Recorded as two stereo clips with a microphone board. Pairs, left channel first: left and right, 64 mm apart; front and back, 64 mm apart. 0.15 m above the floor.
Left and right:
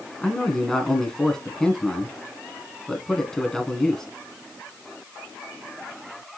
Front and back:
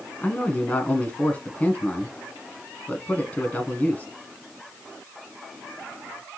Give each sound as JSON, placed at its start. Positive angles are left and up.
{"t": 0.2, "sound": "a man speaking", "azimuth_deg": 15, "distance_m": 1.1}